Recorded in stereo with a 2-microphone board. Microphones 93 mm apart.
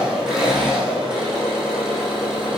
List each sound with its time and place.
0.0 s an engine running: 5° right (ahead or behind), 5 m